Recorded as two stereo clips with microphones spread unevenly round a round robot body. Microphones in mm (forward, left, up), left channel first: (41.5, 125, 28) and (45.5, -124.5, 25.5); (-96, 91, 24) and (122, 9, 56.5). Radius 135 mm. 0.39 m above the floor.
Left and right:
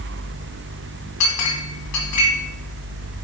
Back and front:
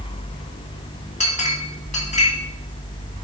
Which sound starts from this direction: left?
A clink, at 1.2 s.